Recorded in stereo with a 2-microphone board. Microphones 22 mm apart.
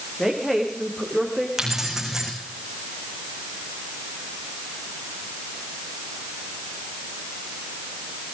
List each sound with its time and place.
0.2 s a woman speaking: 5° left (ahead or behind), 6.5 m
1.6 s keys jangling: 20° right (ahead or behind), 5.5 m